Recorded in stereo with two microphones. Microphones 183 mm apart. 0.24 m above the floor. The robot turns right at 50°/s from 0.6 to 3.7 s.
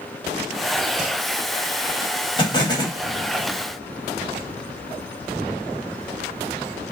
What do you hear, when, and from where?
2.4 s an explosion: 25° left (ahead or behind), 0.8 m; by 3.0 s 20° left (ahead or behind), 0.8 m